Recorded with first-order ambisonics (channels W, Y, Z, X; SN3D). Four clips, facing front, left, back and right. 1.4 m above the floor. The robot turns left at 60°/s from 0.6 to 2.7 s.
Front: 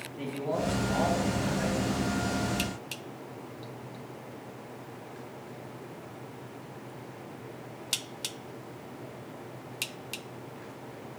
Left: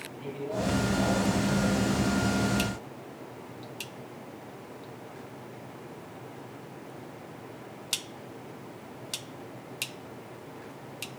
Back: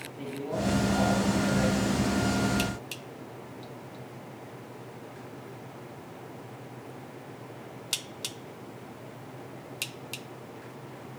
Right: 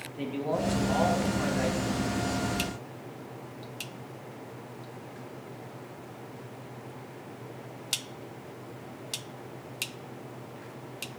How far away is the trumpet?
I don't hear a trumpet.